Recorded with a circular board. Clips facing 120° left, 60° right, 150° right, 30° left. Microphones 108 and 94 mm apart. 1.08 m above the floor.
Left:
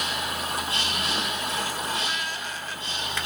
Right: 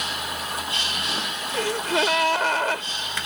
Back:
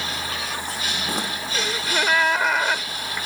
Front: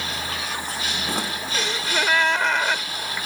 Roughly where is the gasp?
Ahead right.